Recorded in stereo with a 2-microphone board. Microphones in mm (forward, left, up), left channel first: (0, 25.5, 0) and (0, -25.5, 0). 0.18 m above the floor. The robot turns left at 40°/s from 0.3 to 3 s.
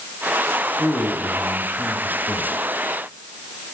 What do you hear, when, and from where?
0.8 s a man speaking: 30° left (ahead or behind), 1.1 m; by 2.6 s centre (ahead or behind), 1.1 m